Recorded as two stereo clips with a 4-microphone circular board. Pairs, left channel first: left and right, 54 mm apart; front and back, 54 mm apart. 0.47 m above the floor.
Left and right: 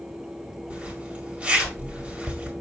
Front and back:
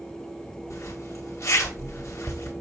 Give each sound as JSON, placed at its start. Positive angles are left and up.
{"t": 0.7, "sound": "a zipper", "azimuth_deg": -25, "distance_m": 4.0}